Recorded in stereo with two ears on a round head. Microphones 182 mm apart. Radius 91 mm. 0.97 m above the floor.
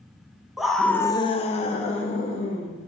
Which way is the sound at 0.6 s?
Centre (ahead or behind).